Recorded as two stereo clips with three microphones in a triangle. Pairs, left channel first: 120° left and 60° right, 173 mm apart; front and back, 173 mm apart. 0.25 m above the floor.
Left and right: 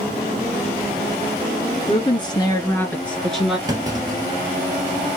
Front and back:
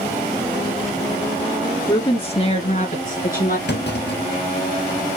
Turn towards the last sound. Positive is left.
turn(degrees=10)